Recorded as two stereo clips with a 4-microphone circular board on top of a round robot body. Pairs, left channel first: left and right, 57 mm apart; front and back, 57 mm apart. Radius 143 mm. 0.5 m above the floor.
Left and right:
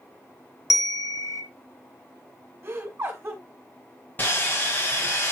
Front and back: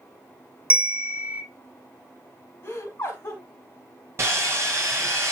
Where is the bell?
110° left, 1.3 m.